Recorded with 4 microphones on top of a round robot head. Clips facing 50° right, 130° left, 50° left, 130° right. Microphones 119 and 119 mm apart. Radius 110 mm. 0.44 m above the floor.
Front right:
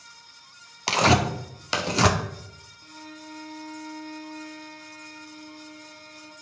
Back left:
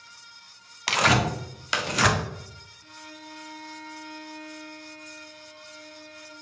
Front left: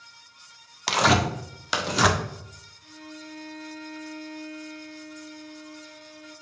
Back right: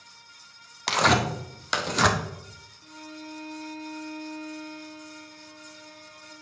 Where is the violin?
90° right, 1.8 m.